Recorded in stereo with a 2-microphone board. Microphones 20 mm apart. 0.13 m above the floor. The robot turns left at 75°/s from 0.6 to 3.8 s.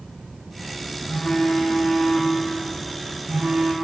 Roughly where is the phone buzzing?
Behind left.